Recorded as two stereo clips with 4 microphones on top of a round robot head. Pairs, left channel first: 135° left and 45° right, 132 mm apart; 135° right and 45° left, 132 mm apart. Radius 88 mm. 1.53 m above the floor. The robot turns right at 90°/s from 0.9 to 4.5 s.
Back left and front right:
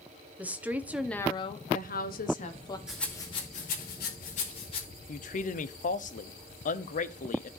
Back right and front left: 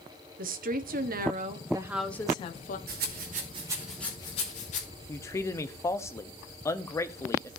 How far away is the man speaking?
About 0.9 m.